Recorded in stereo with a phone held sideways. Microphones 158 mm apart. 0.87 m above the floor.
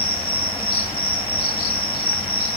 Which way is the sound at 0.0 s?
35° left (ahead or behind).